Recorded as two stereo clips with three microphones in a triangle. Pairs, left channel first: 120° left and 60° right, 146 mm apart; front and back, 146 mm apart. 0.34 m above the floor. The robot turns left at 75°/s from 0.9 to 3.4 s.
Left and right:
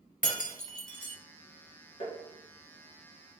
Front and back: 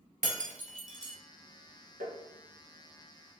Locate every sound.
0.2 s breaking glass: 150° left, 0.8 m; by 1.2 s 130° left, 0.8 m
2.0 s tapping: 165° left, 1.3 m; by 2.2 s 150° left, 1.3 m